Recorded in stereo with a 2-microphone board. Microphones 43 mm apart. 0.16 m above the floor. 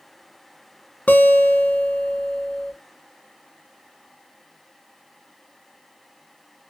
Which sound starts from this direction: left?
A guitar, at 1.1 s.